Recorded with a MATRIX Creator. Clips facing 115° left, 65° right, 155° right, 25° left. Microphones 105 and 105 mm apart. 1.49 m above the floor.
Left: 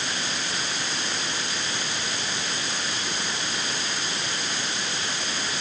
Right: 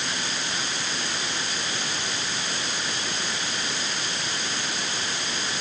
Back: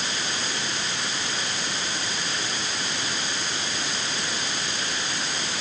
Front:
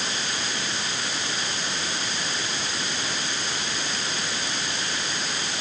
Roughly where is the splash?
I don't hear a splash.